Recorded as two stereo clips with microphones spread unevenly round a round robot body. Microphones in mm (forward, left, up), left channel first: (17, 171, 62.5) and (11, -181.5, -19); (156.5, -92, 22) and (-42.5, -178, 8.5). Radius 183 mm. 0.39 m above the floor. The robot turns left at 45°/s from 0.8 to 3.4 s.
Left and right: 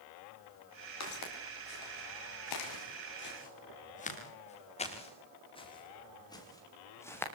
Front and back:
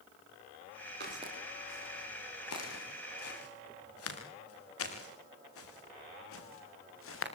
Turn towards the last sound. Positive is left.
turn(degrees=5)